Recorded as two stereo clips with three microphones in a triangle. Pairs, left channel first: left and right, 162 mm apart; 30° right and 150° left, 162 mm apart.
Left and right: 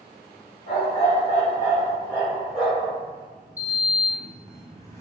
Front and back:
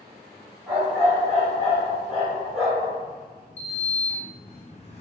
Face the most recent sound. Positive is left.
turn(degrees=20)